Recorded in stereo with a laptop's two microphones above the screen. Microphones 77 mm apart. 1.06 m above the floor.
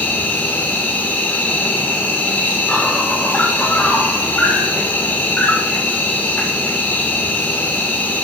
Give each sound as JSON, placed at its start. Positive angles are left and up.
{"t": 0.0, "sound": "an insect", "side_deg": 20, "distance_m": 6.0}